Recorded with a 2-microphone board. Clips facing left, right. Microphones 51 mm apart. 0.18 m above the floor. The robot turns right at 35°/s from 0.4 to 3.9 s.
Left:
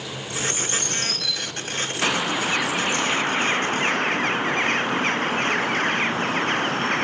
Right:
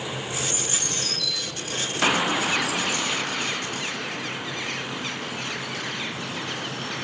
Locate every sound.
0.3 s a bird: 70° left (ahead or behind), 8.5 m; by 3.0 s 20° right (ahead or behind), 8.5 m
2.0 s a bird: 10° right, 0.7 m; by 7.0 s 55° left, 0.7 m